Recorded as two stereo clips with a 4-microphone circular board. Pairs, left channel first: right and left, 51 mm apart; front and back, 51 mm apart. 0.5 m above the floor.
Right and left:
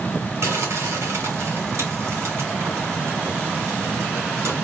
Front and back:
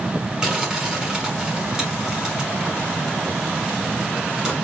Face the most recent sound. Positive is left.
turn(degrees=105)